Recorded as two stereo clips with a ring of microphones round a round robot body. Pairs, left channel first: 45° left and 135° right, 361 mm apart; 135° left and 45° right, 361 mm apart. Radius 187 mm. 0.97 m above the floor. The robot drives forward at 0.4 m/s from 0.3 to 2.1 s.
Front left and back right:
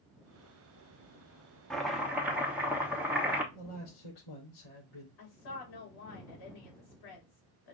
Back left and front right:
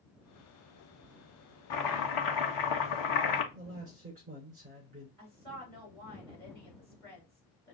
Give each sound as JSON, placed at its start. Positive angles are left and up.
{"t": 1.7, "sound": "chopping", "azimuth_deg": 130, "distance_m": 1.0}
{"t": 3.5, "sound": "a man speaking", "azimuth_deg": 25, "distance_m": 3.5}
{"t": 5.2, "sound": "a woman speaking", "azimuth_deg": 50, "distance_m": 3.0}